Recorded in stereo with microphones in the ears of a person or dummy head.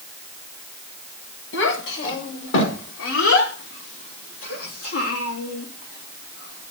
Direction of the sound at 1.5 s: 60° left (ahead or behind).